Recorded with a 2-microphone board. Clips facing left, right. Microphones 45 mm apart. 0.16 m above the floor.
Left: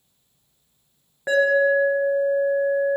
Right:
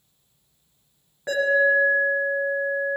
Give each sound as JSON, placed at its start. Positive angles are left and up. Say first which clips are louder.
{"t": 1.3, "sound": "an alarm", "louder": "left 2 dB", "side_deg": 20, "distance_m": 1.6}